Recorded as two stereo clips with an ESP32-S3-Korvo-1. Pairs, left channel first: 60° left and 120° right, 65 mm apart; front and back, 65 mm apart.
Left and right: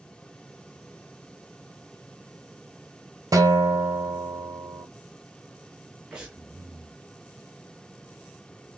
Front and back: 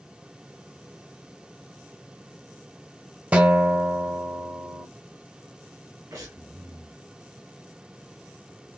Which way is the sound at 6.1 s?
165° left.